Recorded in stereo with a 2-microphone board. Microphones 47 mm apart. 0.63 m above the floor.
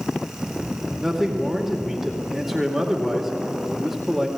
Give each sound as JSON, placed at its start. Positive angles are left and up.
{"t": 1.0, "sound": "a man speaking", "side_deg": -5, "distance_m": 2.0}